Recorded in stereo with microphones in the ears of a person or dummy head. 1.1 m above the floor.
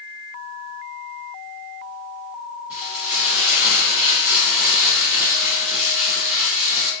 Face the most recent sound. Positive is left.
turn(degrees=-5)  # may be behind; listen again after turning